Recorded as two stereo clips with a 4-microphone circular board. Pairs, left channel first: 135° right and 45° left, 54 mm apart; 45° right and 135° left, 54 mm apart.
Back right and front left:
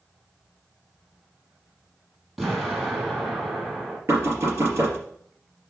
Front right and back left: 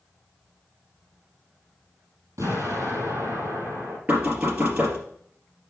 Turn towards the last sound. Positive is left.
turn(degrees=75)